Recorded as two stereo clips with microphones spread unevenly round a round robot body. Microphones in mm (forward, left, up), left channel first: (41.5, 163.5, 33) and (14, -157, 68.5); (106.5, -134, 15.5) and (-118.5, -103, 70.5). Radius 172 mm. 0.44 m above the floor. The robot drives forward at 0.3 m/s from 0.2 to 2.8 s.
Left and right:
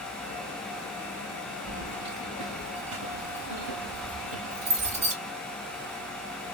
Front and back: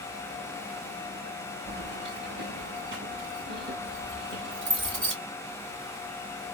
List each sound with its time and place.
1.7 s keys jangling: 135° right, 1.3 m; by 5.2 s 145° right, 1.5 m